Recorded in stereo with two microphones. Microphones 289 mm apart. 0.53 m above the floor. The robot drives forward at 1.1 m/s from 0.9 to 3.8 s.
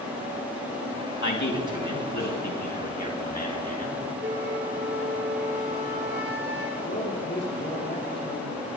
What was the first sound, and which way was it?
A man speaking, 75° left (ahead or behind).